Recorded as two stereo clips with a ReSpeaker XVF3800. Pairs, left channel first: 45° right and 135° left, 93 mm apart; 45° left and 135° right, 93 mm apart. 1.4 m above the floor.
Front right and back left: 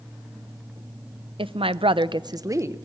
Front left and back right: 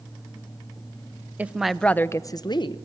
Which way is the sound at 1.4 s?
155° left.